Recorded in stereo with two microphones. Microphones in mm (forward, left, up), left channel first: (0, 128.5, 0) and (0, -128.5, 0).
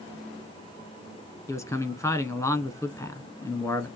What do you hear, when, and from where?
1.5 s a man speaking: 10° left (ahead or behind), 1.0 m